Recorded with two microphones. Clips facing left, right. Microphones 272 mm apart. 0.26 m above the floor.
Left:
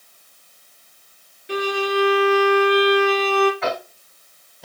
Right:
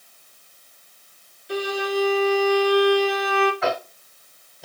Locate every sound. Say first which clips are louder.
1.5 s a violin: left 2 dB; 80° left, 1.7 m
3.6 s tapping: right 1 dB; centre (ahead or behind), 1.1 m